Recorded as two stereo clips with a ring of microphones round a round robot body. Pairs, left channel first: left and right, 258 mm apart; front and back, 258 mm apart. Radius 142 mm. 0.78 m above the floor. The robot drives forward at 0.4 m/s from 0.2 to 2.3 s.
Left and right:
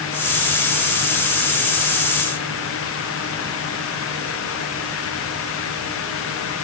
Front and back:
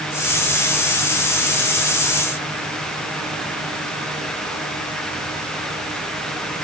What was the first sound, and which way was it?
Only background noise.